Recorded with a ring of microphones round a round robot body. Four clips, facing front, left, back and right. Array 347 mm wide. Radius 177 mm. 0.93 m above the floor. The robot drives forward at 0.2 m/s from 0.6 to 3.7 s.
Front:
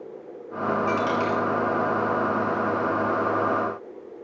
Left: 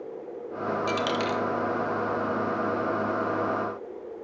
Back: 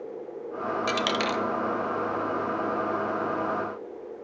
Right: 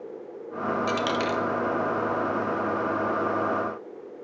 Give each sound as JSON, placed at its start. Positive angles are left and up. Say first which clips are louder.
{"t": 0.9, "sound": "a dropped coin", "louder": "even, front 2 dB", "azimuth_deg": 180, "distance_m": 0.6}